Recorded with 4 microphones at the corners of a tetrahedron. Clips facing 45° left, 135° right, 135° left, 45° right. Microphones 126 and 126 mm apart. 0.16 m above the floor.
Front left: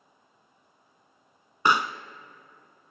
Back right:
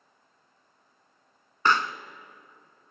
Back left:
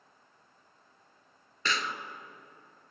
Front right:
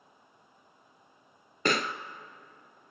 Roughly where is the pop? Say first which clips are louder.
Front left 1 dB, front right 5 dB; ahead right.